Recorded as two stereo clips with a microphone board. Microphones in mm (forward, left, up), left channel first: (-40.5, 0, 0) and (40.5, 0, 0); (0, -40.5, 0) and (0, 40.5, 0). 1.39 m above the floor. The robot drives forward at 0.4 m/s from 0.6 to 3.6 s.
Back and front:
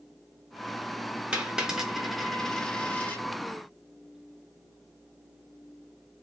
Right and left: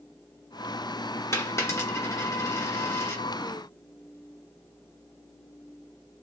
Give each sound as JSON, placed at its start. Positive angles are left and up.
{"t": 1.3, "sound": "a dropped coin", "azimuth_deg": -65, "distance_m": 1.2}